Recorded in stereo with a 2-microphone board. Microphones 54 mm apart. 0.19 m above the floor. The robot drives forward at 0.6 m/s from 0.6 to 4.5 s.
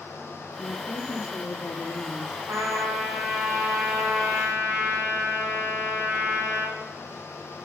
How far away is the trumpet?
About 5 m.